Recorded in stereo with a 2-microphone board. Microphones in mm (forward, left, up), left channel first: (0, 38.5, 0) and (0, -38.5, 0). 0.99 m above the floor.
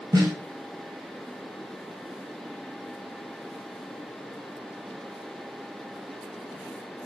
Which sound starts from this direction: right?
A snare drum, at 0.1 s.